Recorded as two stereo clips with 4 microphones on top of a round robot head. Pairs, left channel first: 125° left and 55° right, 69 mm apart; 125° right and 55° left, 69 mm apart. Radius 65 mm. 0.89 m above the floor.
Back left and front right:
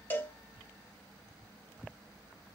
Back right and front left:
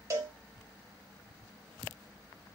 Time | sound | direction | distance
0.1 | a cowbell | 70° left | 0.9 m